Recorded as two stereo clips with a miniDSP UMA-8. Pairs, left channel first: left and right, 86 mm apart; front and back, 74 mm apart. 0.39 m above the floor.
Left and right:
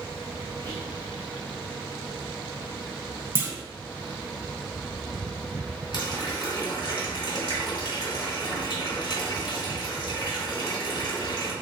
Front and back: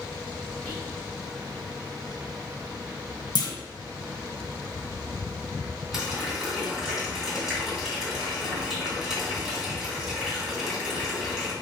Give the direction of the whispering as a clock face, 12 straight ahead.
10 o'clock.